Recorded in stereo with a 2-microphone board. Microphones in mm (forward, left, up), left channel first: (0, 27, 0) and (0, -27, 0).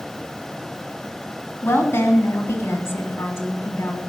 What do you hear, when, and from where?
1.6 s a woman speaking: 45° left (ahead or behind), 3 m